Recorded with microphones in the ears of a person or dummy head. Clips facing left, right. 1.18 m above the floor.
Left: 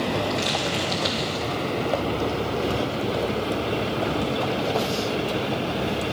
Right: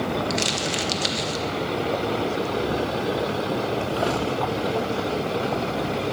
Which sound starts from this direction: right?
Crumpling, at 0.3 s.